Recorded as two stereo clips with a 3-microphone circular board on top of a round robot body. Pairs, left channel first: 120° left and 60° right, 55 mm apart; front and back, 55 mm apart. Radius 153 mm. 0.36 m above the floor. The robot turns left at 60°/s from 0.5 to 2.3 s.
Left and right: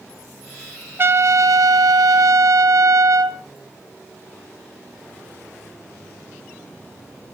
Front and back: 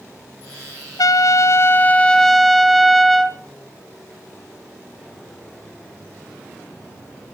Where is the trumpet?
10° right, 0.9 m; by 3.4 s 85° right, 0.9 m.